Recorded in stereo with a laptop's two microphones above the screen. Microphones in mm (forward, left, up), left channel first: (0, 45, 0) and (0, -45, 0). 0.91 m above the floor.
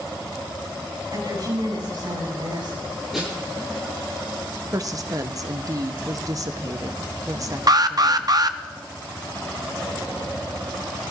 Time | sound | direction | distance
1.1 | a woman speaking | 55° right (ahead or behind) | 7 m
3.1 | a snare drum | 5° right (ahead or behind) | 8 m
4.7 | a woman speaking | 40° right (ahead or behind) | 0.9 m
7.7 | an alarm | 45° right (ahead or behind) | 0.6 m